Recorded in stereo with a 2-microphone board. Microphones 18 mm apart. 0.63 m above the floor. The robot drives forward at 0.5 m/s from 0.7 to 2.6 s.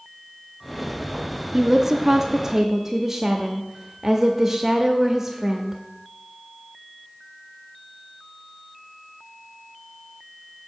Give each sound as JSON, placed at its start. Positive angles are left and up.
{"t": 1.5, "sound": "a woman speaking", "side_deg": -20, "distance_m": 0.6}